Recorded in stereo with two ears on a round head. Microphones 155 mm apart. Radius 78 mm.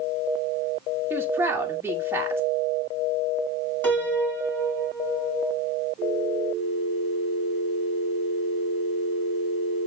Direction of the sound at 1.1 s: 15° right (ahead or behind).